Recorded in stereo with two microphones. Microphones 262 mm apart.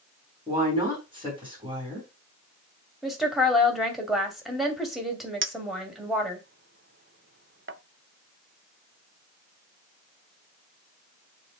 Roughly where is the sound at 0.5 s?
Centre.